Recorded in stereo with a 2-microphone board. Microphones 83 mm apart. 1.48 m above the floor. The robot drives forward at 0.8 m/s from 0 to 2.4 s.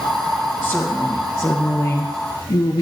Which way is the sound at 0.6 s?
15° left (ahead or behind).